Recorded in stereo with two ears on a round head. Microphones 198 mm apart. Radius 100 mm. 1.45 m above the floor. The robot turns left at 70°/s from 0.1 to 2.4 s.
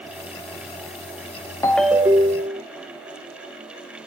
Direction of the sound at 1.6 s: 15° left.